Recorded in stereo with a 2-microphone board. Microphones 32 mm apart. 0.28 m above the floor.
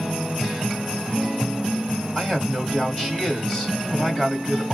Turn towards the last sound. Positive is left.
turn(degrees=25)  # may be behind; listen again after turning